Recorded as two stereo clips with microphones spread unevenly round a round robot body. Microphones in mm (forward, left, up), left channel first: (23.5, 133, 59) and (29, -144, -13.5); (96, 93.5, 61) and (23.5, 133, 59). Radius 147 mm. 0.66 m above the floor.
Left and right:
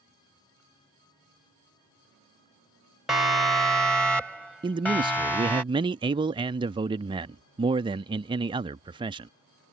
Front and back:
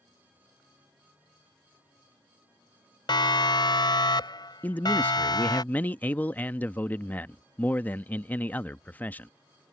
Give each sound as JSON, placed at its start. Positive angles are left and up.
{"t": 3.1, "sound": "a siren", "azimuth_deg": -5}
{"t": 4.6, "sound": "a man speaking", "azimuth_deg": -80}